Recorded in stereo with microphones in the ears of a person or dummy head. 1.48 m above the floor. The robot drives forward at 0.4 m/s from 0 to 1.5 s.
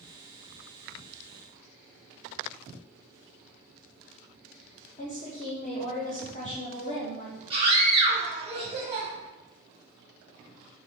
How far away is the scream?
About 1.3 m.